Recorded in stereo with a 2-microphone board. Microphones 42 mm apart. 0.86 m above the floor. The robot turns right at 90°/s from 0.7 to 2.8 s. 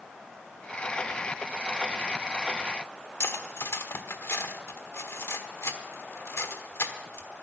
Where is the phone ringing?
No phone ringing in this recording.